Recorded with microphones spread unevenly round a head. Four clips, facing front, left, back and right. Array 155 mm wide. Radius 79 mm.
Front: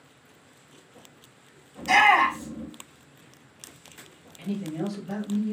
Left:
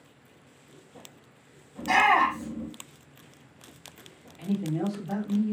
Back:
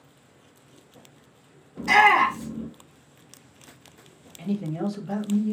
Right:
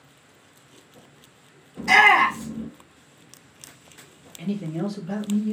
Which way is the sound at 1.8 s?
130° right.